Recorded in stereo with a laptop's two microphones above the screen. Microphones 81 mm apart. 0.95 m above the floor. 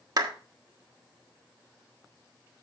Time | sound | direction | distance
0.2 | a clap | 50° right (ahead or behind) | 1.5 m